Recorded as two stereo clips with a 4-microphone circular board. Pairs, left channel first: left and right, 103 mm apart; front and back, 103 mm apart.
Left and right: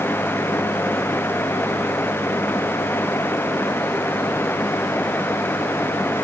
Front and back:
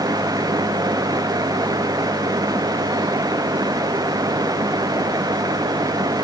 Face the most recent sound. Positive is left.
No sound to turn to.